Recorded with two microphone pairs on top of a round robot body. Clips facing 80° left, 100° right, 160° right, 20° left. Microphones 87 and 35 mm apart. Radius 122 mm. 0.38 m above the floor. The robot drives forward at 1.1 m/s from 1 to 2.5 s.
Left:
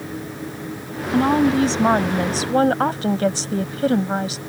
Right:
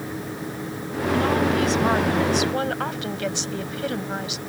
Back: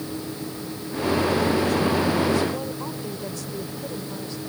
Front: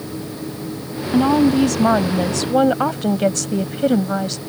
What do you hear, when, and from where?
1.1 s a woman speaking: 20° left; by 4.4 s 25° left